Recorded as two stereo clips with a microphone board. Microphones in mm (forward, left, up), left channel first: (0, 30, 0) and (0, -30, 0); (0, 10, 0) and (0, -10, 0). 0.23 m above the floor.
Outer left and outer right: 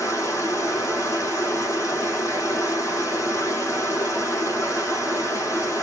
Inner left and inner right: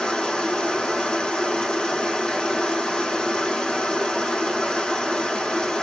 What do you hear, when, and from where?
0.0 s running water: 55° left (ahead or behind), 4.5 m